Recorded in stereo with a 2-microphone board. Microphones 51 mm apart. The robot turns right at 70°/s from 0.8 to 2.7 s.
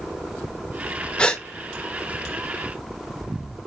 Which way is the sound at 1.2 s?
20° left (ahead or behind).